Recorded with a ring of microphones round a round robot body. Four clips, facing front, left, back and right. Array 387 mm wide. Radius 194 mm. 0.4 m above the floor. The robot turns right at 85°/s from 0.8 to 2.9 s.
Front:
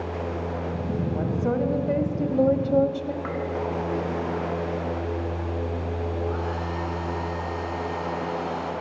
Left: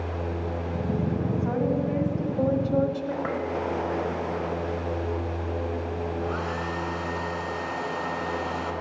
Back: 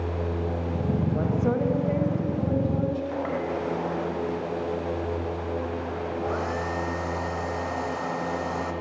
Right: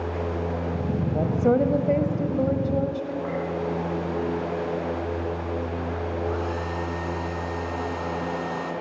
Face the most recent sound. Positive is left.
turn(degrees=165)